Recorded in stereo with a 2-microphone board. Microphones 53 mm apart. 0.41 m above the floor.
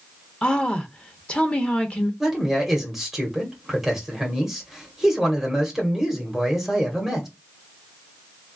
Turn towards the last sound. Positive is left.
turn(degrees=-5)  # may be behind; listen again after turning